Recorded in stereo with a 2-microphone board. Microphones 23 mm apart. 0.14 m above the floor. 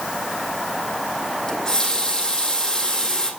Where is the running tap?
25° left (ahead or behind), 3 m.